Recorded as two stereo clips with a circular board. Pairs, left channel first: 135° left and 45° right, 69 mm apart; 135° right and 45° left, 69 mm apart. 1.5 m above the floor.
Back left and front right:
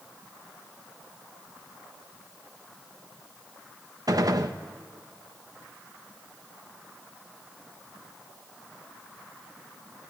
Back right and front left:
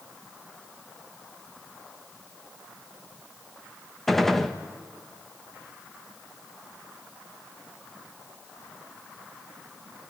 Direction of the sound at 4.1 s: 50° right.